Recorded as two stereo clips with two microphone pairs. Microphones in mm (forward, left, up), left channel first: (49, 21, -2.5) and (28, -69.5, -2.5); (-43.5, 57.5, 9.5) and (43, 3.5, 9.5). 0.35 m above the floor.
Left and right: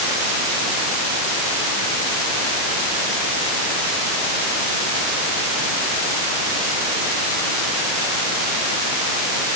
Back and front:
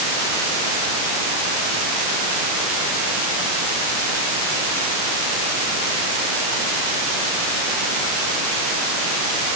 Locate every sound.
Only background noise.